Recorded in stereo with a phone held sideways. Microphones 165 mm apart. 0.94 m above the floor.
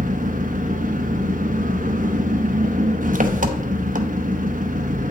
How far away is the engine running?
About 0.8 m.